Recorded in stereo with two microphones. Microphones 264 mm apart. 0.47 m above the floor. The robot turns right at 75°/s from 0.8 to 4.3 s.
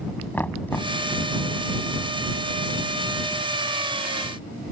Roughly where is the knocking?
Centre.